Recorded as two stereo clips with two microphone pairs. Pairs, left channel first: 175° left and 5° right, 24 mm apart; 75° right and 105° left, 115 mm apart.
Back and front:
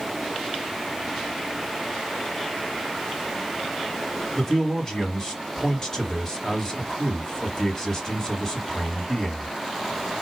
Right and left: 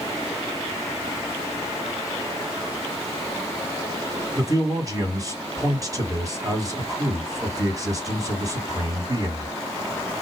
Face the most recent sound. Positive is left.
turn(degrees=125)